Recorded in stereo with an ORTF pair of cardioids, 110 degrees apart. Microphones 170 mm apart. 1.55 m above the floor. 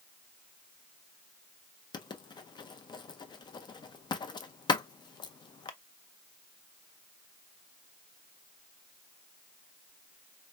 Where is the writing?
25° left, 0.6 m.